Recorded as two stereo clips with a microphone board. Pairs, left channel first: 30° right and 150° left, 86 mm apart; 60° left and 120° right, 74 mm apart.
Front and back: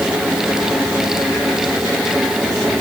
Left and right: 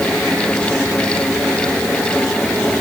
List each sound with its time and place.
Only background noise.